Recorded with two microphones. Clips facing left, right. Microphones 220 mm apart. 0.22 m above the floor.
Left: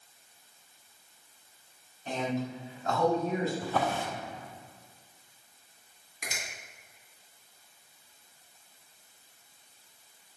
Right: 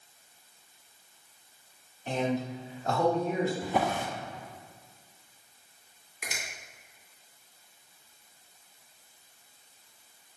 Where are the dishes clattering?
No dishes clattering in this recording.